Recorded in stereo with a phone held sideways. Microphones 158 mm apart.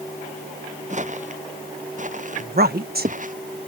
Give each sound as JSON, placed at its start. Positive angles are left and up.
{"t": 0.9, "sound": "footsteps", "side_deg": -50}
{"t": 2.4, "sound": "a woman speaking", "side_deg": -75}